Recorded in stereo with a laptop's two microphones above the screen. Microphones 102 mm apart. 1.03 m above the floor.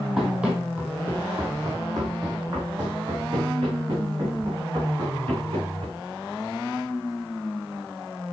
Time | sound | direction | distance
0.2 | running footsteps | 5° right (ahead or behind) | 2 m